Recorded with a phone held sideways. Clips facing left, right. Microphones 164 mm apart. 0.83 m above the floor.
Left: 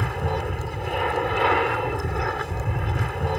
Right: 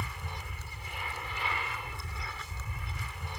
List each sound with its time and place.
0.0 s an aircraft: 65° left (ahead or behind)